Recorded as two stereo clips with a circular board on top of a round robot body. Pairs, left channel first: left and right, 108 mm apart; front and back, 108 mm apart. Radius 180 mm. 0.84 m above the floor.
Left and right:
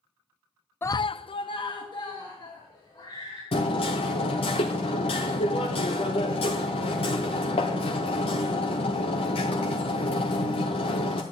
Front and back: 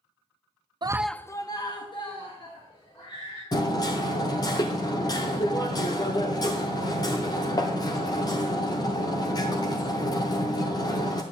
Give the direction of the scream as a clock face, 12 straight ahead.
7 o'clock.